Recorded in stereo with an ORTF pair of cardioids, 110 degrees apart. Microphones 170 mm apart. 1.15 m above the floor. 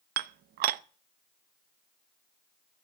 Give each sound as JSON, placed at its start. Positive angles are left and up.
{"t": 0.2, "sound": "dishes clattering", "azimuth_deg": -65, "distance_m": 0.7}